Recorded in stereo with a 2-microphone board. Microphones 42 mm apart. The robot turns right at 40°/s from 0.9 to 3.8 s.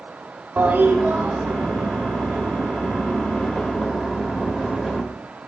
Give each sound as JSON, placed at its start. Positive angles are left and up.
{"t": 0.6, "sound": "a toilet flushing", "azimuth_deg": -125, "distance_m": 1.3}